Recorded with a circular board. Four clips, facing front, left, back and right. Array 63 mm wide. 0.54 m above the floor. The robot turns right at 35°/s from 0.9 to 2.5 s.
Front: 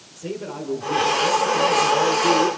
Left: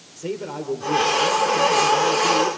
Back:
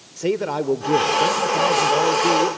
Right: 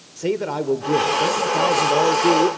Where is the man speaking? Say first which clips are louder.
Right 6 dB, back 9 dB; 145° right, 1.6 m; by 2.5 s 90° right, 1.6 m.